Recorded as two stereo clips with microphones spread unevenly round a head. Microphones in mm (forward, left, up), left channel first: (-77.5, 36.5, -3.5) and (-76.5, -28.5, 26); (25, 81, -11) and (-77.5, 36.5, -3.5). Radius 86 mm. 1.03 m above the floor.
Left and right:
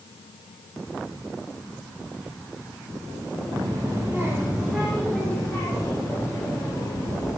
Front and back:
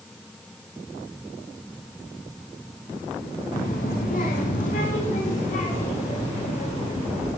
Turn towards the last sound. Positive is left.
turn(degrees=25)